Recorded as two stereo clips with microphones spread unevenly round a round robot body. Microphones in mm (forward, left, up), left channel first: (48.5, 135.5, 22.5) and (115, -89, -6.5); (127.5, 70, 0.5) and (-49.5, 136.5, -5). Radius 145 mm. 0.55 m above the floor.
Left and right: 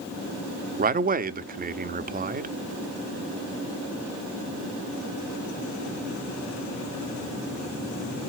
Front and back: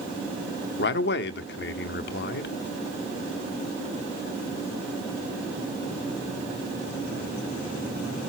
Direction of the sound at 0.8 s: 35° right.